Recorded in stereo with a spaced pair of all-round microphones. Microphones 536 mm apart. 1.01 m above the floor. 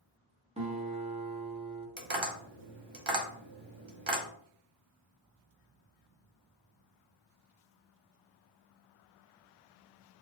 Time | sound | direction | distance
0.6 | a guitar | 10° right (ahead or behind) | 0.8 m
2.0 | tapping | 55° right (ahead or behind) | 0.8 m